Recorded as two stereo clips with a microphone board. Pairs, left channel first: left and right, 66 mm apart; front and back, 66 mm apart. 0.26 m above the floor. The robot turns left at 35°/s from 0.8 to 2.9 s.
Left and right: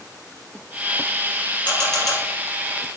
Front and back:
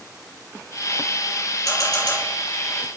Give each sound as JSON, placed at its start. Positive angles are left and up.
{"t": 1.6, "sound": "a camera shutter", "azimuth_deg": 20, "distance_m": 1.6}